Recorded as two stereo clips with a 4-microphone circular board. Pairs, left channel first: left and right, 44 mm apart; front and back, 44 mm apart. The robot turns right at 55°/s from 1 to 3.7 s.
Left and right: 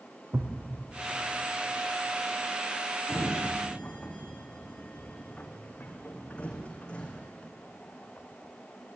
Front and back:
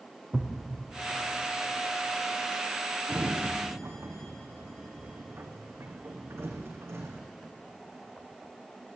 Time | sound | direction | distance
0.3 | a thud | 110° right | 3.5 m
3.1 | a sliding door | 120° left | 3.5 m